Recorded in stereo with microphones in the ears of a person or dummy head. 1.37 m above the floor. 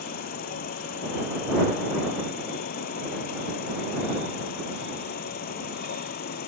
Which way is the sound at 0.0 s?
45° left (ahead or behind).